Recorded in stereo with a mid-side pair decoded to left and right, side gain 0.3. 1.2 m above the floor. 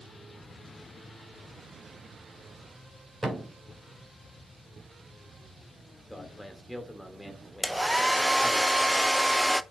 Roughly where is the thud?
Ahead.